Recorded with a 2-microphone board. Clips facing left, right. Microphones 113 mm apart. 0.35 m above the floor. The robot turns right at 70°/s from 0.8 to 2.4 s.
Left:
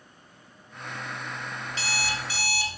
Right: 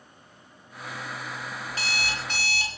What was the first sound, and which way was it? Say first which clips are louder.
An alarm clock: left 1 dB; 130° right.